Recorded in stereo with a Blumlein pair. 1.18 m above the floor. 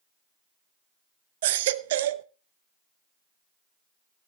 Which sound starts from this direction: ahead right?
A baby crying, at 1.4 s.